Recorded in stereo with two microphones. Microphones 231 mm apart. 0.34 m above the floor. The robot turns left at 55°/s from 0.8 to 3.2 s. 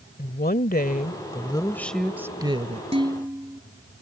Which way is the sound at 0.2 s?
65° left.